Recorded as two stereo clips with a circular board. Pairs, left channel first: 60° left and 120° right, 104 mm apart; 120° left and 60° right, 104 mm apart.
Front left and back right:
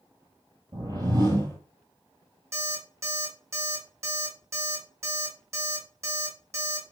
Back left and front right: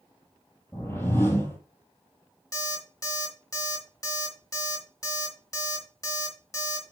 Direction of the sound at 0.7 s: 175° right.